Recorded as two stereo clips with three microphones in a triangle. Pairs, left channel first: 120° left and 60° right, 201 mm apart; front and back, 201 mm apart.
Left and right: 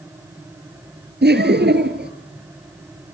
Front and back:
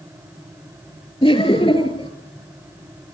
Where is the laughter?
55° right, 2.5 m.